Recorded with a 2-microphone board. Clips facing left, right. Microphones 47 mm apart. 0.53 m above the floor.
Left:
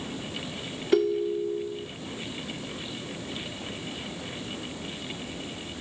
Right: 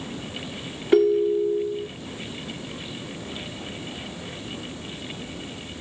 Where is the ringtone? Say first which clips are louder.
Right 6 dB; 20° right (ahead or behind), 0.6 m.